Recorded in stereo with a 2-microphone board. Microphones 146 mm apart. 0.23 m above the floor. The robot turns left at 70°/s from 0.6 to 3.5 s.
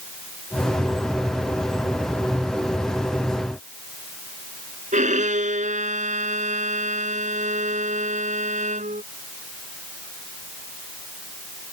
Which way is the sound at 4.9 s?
60° right (ahead or behind).